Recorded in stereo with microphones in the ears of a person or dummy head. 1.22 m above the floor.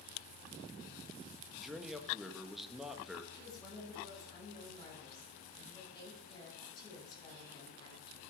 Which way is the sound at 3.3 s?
25° left (ahead or behind).